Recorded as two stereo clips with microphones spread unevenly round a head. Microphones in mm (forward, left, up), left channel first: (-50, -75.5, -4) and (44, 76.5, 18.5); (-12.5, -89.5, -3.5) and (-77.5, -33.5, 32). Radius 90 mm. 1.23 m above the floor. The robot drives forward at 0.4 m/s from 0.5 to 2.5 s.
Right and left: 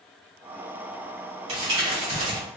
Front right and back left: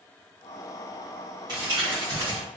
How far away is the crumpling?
About 1.8 m.